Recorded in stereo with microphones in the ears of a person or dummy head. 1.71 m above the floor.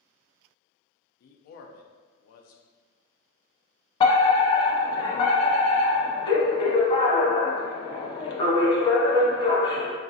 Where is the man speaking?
60° left (ahead or behind), 0.6 m.